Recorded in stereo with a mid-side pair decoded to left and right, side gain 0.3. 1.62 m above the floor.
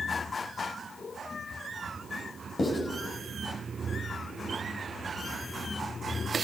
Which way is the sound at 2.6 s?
50° left.